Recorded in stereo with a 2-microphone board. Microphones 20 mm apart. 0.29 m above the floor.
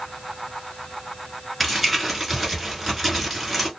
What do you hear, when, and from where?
1.6 s crumpling: 5° right (ahead or behind), 1.2 m